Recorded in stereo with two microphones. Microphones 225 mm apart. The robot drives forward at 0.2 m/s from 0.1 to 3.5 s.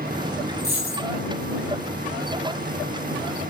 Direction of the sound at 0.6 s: 45° left (ahead or behind).